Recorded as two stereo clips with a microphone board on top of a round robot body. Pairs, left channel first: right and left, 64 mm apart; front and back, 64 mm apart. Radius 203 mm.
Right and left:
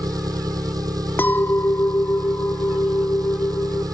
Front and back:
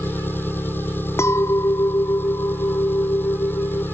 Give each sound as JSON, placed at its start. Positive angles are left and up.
{"t": 0.0, "sound": "an engine running", "azimuth_deg": 60}
{"t": 1.2, "sound": "a clink", "azimuth_deg": -35}